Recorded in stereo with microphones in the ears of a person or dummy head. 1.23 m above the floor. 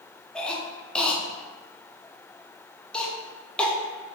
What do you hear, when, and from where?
0.3 s a cough: 5° left (ahead or behind), 0.7 m